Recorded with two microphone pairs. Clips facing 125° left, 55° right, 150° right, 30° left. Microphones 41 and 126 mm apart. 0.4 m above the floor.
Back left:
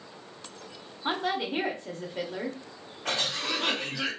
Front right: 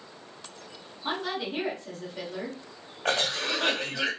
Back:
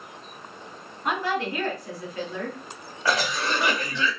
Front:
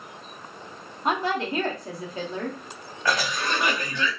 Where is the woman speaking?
80° left, 0.9 m.